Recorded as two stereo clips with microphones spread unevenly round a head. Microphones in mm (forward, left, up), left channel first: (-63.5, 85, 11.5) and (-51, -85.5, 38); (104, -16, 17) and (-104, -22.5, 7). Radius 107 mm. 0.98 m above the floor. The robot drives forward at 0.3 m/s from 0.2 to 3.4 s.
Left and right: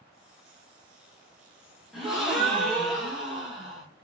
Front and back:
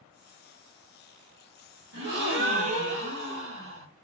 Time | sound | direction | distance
1.9 | a gasp | straight behind | 1.2 m